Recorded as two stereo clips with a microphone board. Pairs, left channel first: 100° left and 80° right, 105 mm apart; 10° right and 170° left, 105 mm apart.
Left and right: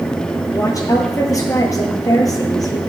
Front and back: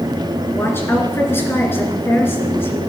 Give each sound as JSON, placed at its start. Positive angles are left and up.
{"t": 0.5, "sound": "a woman speaking", "azimuth_deg": 55, "distance_m": 2.5}